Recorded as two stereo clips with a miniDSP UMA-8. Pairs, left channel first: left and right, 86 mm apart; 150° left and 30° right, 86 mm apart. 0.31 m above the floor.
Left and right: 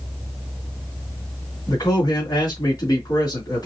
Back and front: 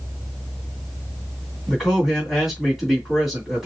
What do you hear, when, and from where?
1.7 s a man speaking: 55° left, 2.5 m